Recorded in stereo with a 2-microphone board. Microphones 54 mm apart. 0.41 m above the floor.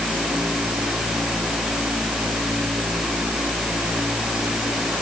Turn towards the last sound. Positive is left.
No sound to turn to.